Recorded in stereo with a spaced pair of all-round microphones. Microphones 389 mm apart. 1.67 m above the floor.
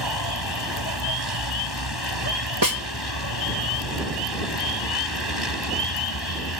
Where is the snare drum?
55° right (ahead or behind).